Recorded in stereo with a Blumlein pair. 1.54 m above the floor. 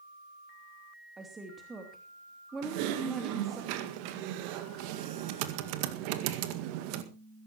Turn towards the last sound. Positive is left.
turn(degrees=-45)